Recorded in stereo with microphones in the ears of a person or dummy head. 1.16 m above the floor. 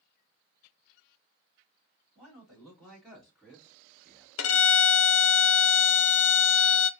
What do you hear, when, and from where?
2.1 s a man speaking: 5° left (ahead or behind), 2.5 m; by 4.3 s 5° right (ahead or behind), 0.8 m
4.4 s a violin: 85° left, 0.6 m